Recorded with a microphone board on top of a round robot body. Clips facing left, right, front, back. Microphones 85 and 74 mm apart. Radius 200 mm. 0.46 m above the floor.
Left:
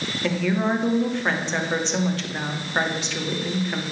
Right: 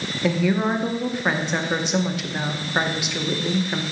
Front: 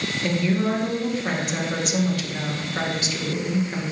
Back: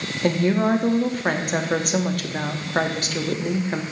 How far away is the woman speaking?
About 1.1 m.